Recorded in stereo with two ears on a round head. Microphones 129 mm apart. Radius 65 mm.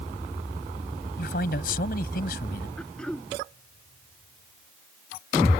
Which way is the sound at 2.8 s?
5° left (ahead or behind).